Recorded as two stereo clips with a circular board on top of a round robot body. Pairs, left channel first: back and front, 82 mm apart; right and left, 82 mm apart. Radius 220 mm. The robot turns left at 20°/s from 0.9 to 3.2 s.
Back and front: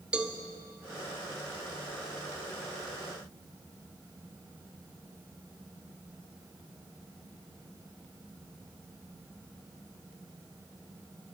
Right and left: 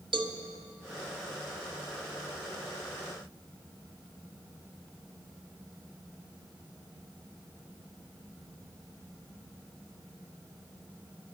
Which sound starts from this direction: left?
A cowbell, at 0.1 s.